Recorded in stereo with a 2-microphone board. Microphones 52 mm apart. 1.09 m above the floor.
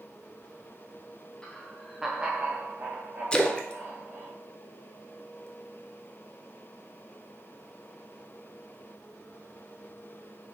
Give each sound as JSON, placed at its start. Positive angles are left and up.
{"t": 1.4, "sound": "laughter", "side_deg": 15, "distance_m": 1.0}
{"t": 3.3, "sound": "a splash", "side_deg": 20, "distance_m": 0.5}